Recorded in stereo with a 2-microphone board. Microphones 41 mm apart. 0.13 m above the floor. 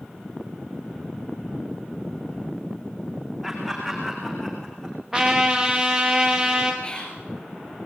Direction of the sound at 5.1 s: 10° right (ahead or behind).